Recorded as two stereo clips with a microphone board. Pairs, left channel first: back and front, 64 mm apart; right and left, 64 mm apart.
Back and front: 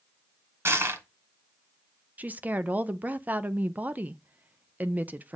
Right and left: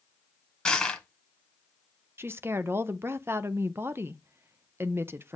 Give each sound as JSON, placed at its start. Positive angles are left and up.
{"t": 0.7, "sound": "crushing", "azimuth_deg": -15, "distance_m": 1.5}
{"t": 2.2, "sound": "a woman speaking", "azimuth_deg": 55, "distance_m": 0.5}